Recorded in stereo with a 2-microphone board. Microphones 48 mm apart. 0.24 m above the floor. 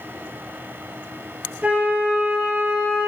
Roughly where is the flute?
Right.